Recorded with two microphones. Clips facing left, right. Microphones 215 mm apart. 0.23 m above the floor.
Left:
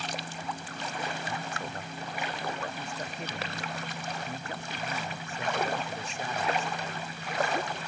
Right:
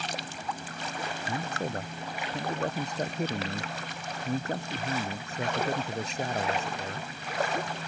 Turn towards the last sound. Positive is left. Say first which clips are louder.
# right 4 dB
turn(degrees=-40)  # may be behind; listen again after turning